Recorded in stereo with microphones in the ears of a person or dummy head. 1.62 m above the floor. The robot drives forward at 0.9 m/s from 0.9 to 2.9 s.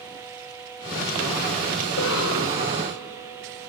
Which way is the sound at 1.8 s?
85° left.